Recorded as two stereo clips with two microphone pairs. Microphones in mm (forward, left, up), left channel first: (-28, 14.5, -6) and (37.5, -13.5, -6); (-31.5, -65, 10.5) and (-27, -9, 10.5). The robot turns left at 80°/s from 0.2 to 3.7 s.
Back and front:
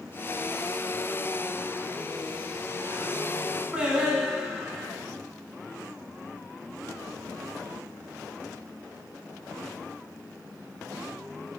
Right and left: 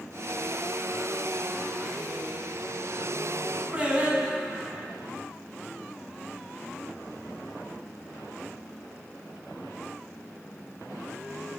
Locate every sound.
3.7 s singing: 40° left, 0.8 m